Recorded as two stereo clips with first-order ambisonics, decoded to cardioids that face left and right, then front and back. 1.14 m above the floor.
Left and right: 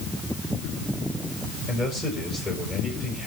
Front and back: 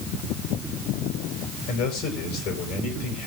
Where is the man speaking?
25° left, 6.5 m.